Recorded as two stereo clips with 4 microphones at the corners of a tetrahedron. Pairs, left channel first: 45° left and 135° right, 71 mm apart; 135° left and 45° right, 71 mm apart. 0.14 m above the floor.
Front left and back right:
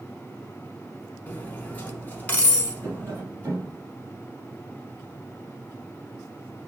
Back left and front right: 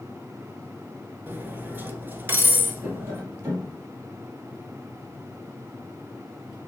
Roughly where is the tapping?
Right.